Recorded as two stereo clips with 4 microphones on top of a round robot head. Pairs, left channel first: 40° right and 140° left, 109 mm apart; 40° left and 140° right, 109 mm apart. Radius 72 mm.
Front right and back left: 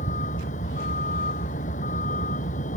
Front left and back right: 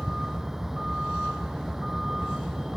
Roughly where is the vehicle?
Ahead right.